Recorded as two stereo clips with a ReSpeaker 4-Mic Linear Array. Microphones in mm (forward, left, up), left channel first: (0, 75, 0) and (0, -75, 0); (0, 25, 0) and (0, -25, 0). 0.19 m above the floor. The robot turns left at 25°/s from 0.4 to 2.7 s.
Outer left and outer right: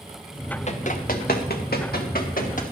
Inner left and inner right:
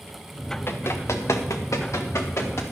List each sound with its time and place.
0.7 s running footsteps: 45° left (ahead or behind), 1.5 m; by 2.6 s 60° left (ahead or behind), 2.5 m